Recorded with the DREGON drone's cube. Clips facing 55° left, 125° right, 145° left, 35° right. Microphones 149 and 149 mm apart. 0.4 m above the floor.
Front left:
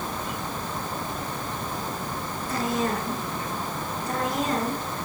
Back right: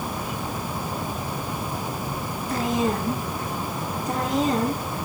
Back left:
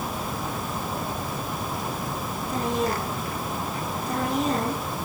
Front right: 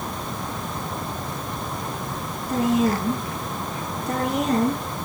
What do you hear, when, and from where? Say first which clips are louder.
2.5 s a woman speaking: back right 3 dB, front right 6 dB; 50° right, 6 m; by 4.8 s 55° right, 7.5 m